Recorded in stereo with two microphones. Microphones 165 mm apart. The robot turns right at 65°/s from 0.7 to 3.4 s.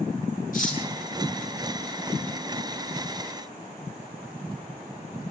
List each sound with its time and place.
0.5 s cutlery clinking: 55° left (ahead or behind), 6 m; by 0.8 s 45° left (ahead or behind), 6 m